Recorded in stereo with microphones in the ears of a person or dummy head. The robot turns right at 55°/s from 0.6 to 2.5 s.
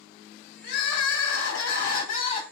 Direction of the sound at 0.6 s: 55° left.